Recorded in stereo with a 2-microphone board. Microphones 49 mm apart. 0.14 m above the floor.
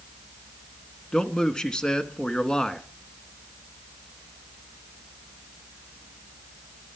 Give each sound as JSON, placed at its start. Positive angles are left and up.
{"t": 1.1, "sound": "a man speaking", "side_deg": 20, "distance_m": 1.2}